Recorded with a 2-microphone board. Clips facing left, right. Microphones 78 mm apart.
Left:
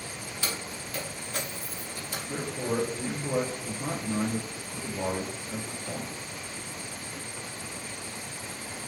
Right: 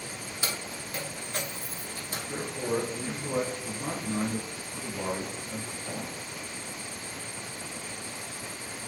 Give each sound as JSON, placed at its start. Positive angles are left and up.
{"t": 0.4, "sound": "keys jangling", "side_deg": -20, "distance_m": 1.0}
{"t": 2.3, "sound": "a man speaking", "side_deg": -5, "distance_m": 1.1}